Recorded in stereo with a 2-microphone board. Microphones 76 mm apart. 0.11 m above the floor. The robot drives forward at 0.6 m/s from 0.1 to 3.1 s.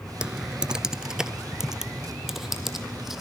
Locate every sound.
0.2 s typing on a keyboard: 15° right (ahead or behind), 0.7 m; by 3.2 s 5° right (ahead or behind), 2 m